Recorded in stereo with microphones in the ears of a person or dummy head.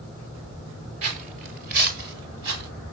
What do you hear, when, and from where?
1.0 s footsteps: 35° right (ahead or behind), 1.3 m; by 2.7 s 60° right (ahead or behind), 2 m